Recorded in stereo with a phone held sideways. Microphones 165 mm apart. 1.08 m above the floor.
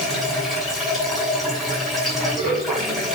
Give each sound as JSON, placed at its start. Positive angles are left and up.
{"t": 0.0, "sound": "running water", "side_deg": 0, "distance_m": 8.5}